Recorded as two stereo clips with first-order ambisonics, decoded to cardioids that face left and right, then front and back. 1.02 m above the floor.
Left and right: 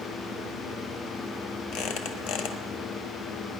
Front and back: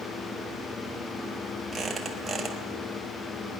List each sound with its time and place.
1.7 s a squeak: 90° left, 1.4 m